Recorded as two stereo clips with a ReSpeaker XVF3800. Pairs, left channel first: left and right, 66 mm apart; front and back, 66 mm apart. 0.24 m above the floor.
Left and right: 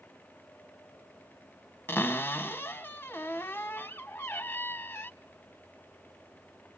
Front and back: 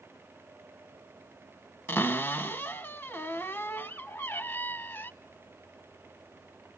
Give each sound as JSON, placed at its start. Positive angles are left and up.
{"t": 1.9, "sound": "a cupboard door", "azimuth_deg": 45, "distance_m": 0.6}